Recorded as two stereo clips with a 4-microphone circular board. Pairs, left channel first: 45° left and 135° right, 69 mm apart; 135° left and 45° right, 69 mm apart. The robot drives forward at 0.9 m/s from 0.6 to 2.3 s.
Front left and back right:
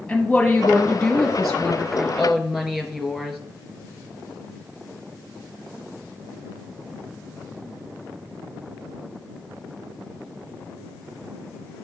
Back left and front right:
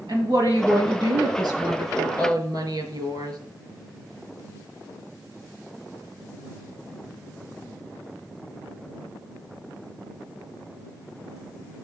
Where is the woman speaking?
35° right, 3.5 m; by 3.4 s 60° right, 2.5 m.